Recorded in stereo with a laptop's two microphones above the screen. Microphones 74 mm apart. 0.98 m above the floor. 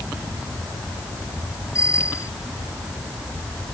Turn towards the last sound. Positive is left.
turn(degrees=45)  # may be behind; listen again after turning